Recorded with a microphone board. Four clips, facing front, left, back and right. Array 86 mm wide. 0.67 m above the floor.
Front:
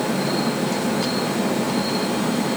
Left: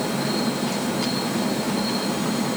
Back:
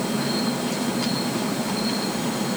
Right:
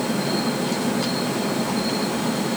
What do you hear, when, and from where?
Only background noise.